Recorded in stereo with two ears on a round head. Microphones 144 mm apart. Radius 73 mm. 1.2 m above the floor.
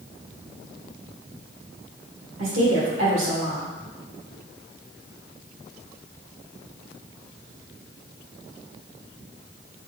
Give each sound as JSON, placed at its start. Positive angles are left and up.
{"t": 2.4, "sound": "a woman speaking", "side_deg": -80, "distance_m": 1.3}